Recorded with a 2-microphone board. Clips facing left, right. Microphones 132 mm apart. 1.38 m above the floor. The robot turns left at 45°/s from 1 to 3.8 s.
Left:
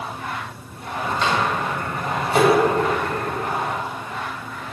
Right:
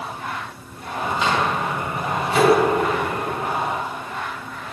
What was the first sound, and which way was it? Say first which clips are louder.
A microwave: even; centre (ahead or behind).